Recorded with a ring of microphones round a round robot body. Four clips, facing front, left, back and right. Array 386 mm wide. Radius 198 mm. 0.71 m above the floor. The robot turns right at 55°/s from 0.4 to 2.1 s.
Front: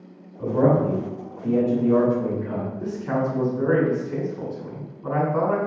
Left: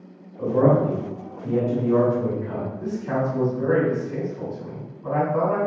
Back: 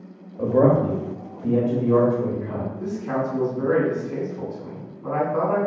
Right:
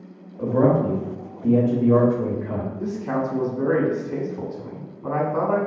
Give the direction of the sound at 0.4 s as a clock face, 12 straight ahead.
6 o'clock.